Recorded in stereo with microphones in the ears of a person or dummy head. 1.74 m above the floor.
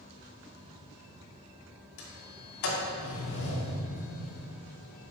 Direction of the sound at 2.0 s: 65° left (ahead or behind).